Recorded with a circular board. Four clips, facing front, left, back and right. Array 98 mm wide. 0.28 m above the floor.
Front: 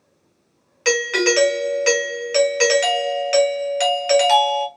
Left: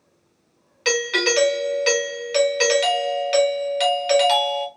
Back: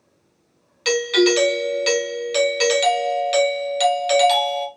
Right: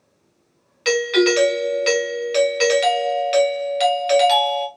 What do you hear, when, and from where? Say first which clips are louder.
0.8 s a doorbell: right 5 dB, back 2 dB; straight ahead, 1.3 m